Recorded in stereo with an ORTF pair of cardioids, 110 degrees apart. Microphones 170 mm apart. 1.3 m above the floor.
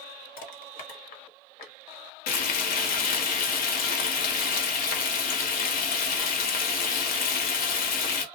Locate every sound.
0.4 s crushing: 65° left, 0.9 m
2.3 s frying: 60° left, 0.8 m